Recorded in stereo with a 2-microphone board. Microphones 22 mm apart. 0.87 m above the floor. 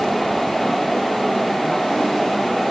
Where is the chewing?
I don't hear chewing.